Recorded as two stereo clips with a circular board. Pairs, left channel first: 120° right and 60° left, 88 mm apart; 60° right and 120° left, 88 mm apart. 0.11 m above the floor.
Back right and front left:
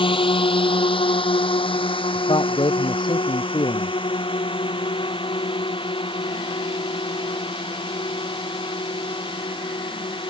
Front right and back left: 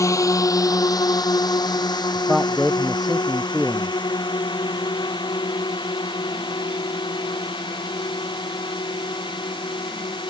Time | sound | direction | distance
0.0 | a drone | 115° right | ?
2.1 | a man speaking | 155° right | ?